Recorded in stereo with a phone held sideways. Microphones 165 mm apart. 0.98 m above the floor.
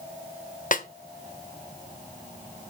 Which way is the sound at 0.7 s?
55° left (ahead or behind).